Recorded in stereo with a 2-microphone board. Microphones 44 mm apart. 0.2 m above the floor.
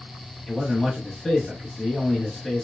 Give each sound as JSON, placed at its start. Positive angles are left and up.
{"t": 0.5, "sound": "a man speaking", "side_deg": 10, "distance_m": 1.0}